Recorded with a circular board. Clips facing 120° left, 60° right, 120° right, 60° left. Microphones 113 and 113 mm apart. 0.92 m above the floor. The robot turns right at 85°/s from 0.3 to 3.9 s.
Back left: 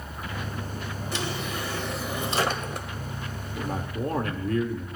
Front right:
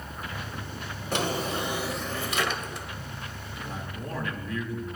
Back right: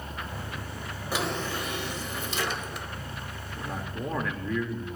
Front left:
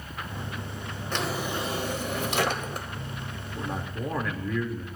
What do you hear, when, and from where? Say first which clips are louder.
1.1 s a drawer: front right 5 dB, even; 40° right, 1.2 m; by 2.9 s 110° left, 1.2 m
3.5 s a man speaking: back left 8 dB, front left 2 dB; 120° left, 2 m; by 4.8 s 150° left, 2 m